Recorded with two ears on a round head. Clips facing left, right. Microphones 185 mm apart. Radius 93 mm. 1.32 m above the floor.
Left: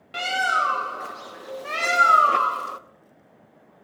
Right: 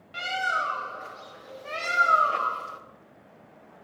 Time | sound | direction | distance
0.1 | a bird | 65° left (ahead or behind) | 0.7 m